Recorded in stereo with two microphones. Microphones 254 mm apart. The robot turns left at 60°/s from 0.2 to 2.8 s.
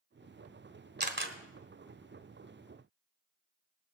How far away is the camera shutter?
About 1.2 m.